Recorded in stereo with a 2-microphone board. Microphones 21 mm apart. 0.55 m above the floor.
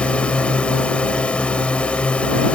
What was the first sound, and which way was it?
A drone, 60° left (ahead or behind).